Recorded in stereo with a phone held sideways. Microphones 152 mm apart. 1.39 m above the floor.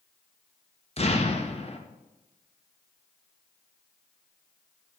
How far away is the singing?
No singing in this recording.